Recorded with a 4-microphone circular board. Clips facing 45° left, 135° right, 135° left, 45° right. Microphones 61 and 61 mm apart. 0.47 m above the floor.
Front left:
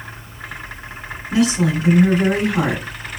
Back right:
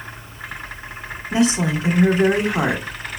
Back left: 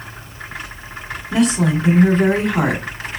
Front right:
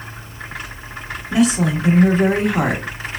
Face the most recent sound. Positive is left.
turn(degrees=-125)